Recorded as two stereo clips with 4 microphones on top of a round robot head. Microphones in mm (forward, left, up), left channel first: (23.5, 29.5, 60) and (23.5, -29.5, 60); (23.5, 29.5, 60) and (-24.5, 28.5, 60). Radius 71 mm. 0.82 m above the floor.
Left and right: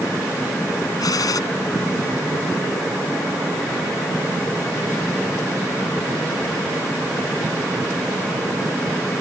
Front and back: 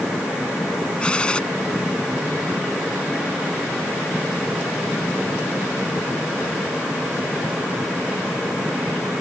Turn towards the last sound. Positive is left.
turn(degrees=70)